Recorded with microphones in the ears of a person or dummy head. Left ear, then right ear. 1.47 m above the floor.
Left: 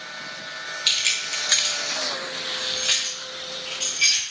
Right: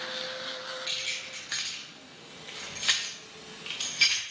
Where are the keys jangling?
50° left (ahead or behind), 0.9 m; by 4.2 s 60° right (ahead or behind), 1.6 m.